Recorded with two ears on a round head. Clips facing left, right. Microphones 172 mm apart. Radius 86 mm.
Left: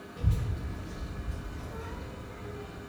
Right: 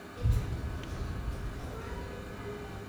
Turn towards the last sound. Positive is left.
turn(degrees=85)